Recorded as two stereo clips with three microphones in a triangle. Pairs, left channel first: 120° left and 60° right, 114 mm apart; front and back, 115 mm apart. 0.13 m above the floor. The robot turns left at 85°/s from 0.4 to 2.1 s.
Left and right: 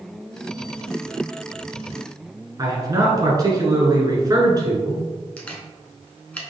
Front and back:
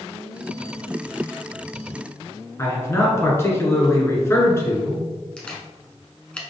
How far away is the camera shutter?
About 0.9 m.